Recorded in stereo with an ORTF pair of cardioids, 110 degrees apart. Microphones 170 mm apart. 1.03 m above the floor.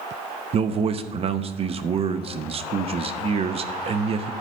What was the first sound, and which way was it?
A man speaking, 35° right.